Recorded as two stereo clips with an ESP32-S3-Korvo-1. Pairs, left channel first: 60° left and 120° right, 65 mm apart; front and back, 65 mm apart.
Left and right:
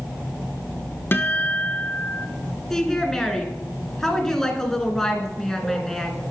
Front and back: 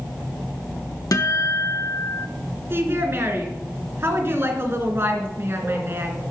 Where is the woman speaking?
140° left, 1.9 m.